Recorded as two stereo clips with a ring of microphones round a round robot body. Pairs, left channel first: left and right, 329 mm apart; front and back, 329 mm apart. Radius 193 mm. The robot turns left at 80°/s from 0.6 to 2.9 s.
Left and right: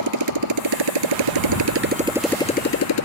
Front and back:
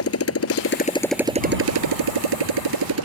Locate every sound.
0.0 s a motorcycle: 50° right; by 3.1 s 130° left